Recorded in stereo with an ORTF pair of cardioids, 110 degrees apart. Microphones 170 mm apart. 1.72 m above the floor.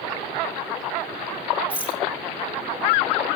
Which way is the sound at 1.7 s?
10° right.